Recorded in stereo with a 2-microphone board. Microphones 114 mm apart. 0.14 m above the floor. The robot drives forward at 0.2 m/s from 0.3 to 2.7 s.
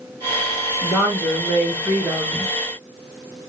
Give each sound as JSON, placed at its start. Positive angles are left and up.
{"t": 0.8, "sound": "a woman speaking", "side_deg": -10, "distance_m": 1.1}